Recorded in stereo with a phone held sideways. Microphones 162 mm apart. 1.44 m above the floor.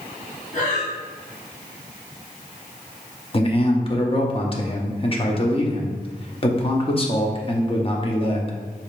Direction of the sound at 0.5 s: 50° left (ahead or behind).